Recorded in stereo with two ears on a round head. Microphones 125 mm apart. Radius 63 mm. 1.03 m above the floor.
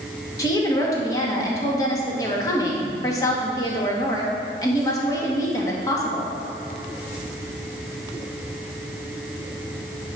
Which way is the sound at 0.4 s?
25° left (ahead or behind).